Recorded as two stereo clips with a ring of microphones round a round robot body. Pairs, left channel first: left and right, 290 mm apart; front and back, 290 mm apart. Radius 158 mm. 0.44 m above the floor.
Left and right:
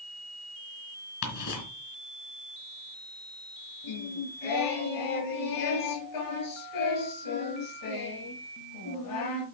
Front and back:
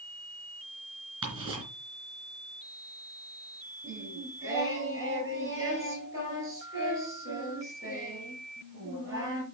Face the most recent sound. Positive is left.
turn(degrees=100)